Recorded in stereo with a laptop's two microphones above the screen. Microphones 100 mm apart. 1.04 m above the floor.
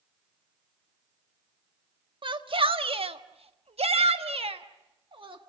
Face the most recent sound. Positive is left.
turn(degrees=-55)  # may be behind; listen again after turning